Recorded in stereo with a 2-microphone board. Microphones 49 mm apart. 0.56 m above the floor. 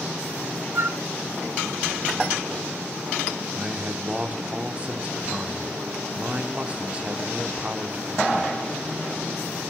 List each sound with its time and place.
0.8 s a flute: 60° right (ahead or behind), 0.6 m
3.5 s a man speaking: 25° right (ahead or behind), 1.2 m